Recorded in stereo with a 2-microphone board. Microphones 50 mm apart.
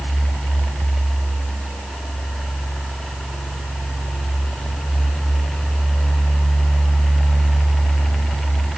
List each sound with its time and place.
Only background noise.